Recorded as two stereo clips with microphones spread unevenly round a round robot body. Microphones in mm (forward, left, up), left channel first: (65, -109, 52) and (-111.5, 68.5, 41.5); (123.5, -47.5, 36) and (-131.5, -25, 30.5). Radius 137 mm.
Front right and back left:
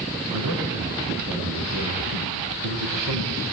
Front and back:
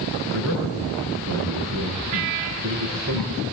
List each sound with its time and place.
0.3 s a man speaking: 130° left, 6.5 m